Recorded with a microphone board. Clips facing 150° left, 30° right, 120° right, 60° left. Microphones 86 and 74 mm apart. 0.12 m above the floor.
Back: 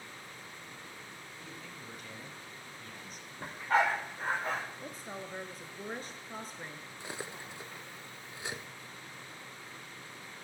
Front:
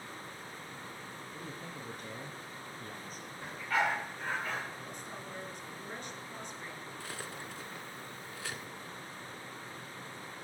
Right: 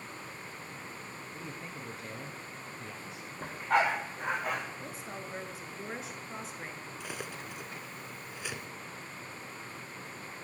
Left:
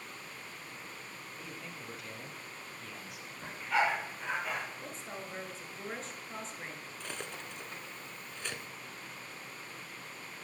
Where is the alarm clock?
I don't hear an alarm clock.